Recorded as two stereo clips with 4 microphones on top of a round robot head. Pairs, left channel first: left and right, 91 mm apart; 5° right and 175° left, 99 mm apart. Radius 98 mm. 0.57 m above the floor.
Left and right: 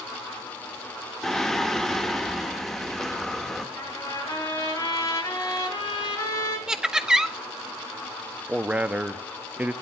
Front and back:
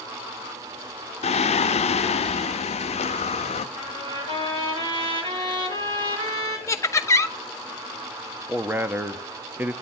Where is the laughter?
15° right, 0.7 m.